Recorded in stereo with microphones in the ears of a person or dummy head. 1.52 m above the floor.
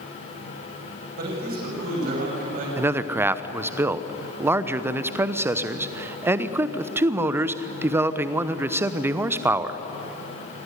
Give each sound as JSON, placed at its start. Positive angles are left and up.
{"t": 1.2, "sound": "a man speaking", "side_deg": -55, "distance_m": 9.0}
{"t": 2.8, "sound": "a man speaking", "side_deg": -15, "distance_m": 0.9}